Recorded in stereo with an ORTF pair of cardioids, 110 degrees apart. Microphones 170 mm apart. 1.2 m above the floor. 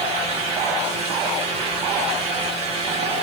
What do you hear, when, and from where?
0.0 s a fan: 45° right, 2.0 m